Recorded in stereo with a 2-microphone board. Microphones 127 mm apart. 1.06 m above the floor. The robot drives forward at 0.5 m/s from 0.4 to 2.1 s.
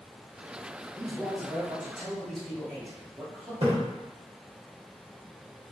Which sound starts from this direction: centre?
A man speaking, at 0.9 s.